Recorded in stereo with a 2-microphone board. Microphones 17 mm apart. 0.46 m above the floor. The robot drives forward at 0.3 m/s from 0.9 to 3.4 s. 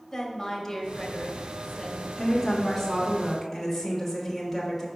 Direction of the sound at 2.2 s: 5° left (ahead or behind).